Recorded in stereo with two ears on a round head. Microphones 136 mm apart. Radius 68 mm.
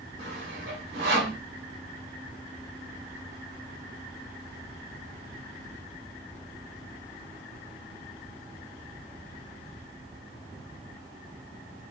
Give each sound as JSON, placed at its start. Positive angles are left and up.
{"t": 0.2, "sound": "sawing", "side_deg": -75, "distance_m": 1.3}